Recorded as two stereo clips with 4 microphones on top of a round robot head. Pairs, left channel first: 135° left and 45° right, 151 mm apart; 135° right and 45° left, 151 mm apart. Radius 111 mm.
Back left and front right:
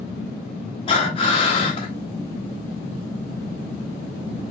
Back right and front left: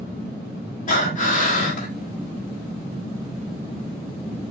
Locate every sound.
0.9 s breathing: 170° right, 2.0 m